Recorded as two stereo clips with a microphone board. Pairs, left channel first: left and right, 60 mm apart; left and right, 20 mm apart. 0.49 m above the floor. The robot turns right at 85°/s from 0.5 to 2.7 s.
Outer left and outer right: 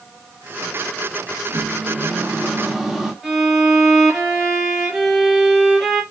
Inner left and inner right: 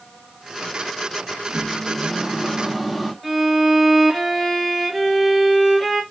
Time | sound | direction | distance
1.5 | a microwave | 115° right | 0.7 m
3.2 | a violin | centre (ahead or behind) | 0.8 m